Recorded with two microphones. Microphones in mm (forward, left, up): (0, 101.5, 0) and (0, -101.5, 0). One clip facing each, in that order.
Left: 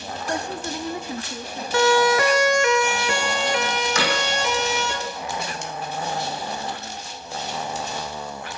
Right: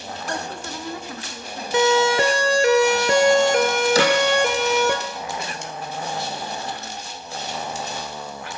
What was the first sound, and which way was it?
A woman speaking, 15° left (ahead or behind).